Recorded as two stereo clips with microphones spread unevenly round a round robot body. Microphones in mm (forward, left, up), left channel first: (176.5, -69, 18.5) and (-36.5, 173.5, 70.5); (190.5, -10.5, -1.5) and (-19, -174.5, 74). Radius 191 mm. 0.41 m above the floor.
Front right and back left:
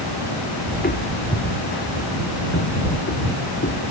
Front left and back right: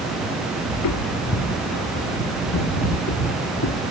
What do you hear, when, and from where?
0.7 s footsteps: 20° left; by 3.9 s 10° left